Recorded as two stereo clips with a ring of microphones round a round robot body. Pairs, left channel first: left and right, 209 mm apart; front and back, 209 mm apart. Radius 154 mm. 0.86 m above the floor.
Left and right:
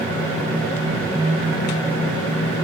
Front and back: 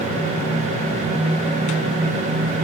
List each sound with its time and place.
Only background noise.